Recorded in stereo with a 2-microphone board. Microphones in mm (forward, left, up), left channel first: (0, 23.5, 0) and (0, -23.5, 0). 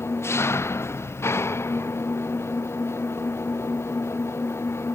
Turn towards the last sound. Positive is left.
turn(degrees=75)  # may be behind; listen again after turning